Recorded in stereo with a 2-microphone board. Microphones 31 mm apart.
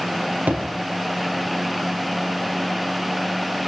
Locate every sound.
0.5 s a thud: 65° right (ahead or behind), 5 m